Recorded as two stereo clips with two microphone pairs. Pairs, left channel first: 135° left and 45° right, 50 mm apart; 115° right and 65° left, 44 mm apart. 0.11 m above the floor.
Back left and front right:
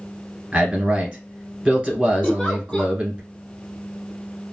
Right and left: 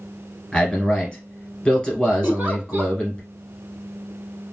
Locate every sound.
0.5 s a man speaking: 75° right, 1.2 m
2.2 s a giggle: 80° left, 0.7 m